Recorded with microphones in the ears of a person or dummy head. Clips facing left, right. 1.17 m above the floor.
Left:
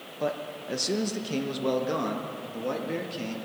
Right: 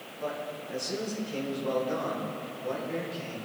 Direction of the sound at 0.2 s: 60° left (ahead or behind).